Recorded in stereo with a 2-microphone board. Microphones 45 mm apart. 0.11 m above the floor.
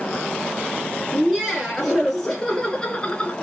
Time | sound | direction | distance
1.1 | laughter | 15° right (ahead or behind) | 2.0 m